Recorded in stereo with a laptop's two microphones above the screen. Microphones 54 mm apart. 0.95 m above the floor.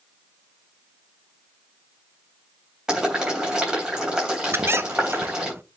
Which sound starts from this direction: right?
A squeak, at 4.5 s.